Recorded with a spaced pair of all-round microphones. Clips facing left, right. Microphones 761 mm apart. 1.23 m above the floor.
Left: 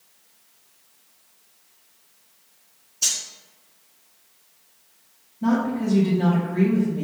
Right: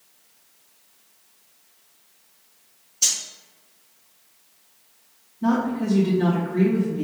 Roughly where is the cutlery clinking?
Right.